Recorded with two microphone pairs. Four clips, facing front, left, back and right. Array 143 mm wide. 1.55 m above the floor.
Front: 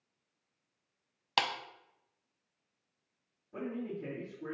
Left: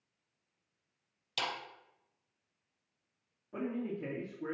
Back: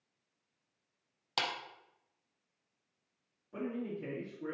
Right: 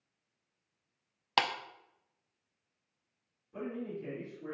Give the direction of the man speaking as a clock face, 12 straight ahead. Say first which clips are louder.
Left 2 dB, even; 8 o'clock.